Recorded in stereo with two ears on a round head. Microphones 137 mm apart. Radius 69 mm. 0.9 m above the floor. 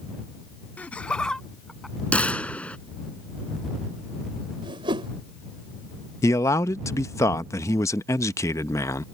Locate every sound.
0.8 s laughter: 10° left (ahead or behind); by 1.9 s centre (ahead or behind)
2.1 s a gunshot: 10° left (ahead or behind)
4.6 s a whoosh: 35° right (ahead or behind)
6.2 s a man speaking: 20° left (ahead or behind)